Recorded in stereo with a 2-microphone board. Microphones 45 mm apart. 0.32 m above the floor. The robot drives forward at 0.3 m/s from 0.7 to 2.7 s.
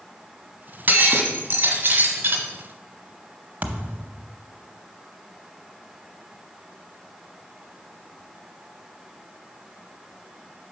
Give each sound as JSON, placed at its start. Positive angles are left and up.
{"t": 0.9, "sound": "breaking glass", "side_deg": -50, "distance_m": 1.5}
{"t": 3.6, "sound": "a thud", "side_deg": -45, "distance_m": 0.7}